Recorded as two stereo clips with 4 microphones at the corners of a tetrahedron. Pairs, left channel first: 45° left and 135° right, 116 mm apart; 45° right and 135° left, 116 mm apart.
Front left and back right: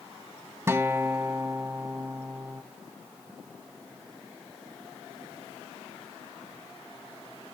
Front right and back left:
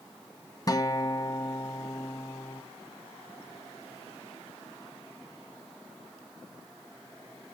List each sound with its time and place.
0.7 s a guitar: 80° right, 1.0 m